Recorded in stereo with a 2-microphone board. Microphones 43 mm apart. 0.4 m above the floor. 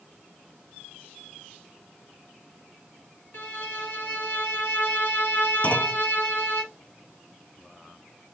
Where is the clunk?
40° left (ahead or behind), 0.5 m.